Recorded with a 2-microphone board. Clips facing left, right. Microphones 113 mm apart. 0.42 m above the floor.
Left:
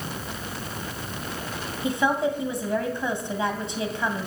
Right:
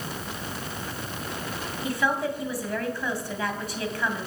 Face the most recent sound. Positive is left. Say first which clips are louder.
# left 3 dB
turn(degrees=20)  # may be behind; listen again after turning